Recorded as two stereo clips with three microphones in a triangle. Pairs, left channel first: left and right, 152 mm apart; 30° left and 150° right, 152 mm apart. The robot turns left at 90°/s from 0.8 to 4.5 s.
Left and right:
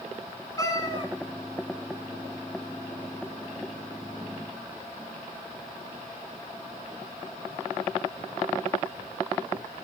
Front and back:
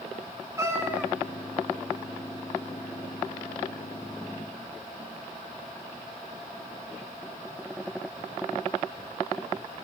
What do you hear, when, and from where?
0.6 s a cat meowing: 145° left, 0.9 m; by 1.1 s 120° left, 0.9 m